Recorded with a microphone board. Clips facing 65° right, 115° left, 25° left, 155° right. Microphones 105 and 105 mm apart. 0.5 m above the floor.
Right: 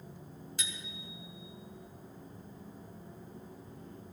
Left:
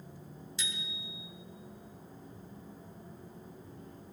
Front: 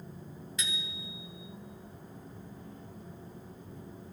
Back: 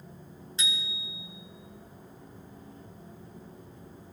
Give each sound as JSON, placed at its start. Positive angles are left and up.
{"t": 0.6, "sound": "a bicycle bell", "azimuth_deg": -100, "distance_m": 2.5}